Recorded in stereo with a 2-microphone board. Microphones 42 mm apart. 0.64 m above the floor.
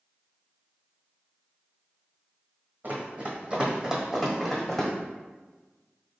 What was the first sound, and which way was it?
Running footsteps, 45° right (ahead or behind).